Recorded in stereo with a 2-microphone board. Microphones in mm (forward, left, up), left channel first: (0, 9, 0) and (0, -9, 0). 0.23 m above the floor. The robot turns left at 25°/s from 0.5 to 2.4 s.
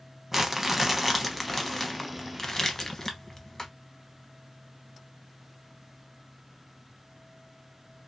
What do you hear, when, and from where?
0.3 s crumpling: 155° right, 0.7 m; by 3.7 s 155° left, 0.7 m